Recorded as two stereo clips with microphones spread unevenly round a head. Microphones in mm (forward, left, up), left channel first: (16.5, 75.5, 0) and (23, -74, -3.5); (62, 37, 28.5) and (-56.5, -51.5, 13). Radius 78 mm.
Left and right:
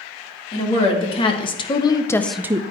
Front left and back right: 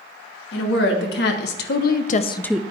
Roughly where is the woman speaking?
Ahead left.